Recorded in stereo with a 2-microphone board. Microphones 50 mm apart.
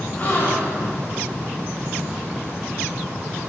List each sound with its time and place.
0.2 s a gasp: 35° left (ahead or behind), 8 m